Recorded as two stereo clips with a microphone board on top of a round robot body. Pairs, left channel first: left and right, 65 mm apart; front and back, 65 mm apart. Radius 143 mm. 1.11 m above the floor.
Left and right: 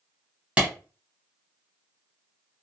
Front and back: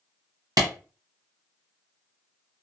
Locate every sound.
0.6 s a clap: 160° right, 1.0 m